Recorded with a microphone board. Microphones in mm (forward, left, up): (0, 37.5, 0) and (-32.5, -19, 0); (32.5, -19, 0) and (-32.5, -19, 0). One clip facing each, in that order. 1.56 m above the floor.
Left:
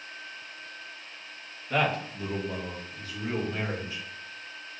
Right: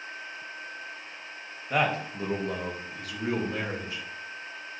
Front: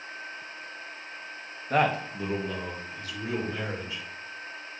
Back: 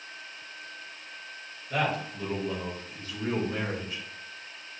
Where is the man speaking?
40° right, 0.8 m; by 4.0 s 145° right, 1.7 m.